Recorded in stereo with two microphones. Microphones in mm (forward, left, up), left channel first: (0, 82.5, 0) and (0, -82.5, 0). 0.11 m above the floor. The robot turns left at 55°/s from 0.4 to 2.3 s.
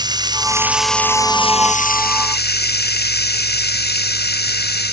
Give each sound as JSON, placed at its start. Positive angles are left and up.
{"t": 0.0, "sound": "running water", "azimuth_deg": -155}